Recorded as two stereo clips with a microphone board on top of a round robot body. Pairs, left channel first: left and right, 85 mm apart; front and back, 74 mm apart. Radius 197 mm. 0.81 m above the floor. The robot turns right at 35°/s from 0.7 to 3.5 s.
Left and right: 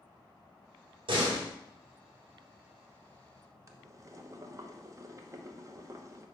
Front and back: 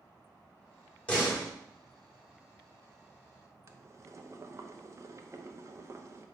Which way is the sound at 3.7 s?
135° right.